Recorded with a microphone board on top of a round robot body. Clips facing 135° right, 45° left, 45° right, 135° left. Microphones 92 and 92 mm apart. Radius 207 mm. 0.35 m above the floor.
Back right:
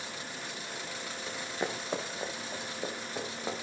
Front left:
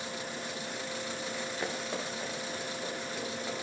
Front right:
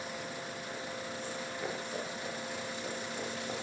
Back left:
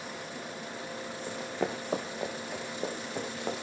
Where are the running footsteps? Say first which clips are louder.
Back right 3 dB, back left 8 dB; 150° left, 2.5 m; by 3.5 s 160° left, 4.5 m.